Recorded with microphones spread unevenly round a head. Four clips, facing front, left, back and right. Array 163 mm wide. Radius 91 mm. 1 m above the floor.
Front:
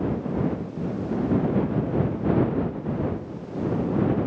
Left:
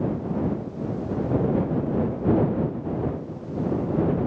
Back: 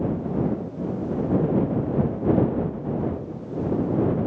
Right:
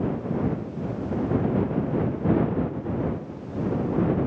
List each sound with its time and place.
Only background noise.